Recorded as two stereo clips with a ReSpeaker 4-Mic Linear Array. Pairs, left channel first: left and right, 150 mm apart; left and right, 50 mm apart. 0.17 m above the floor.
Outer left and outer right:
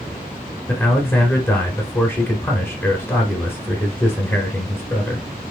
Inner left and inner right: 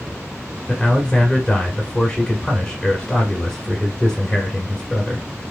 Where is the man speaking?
15° left (ahead or behind), 1.2 m.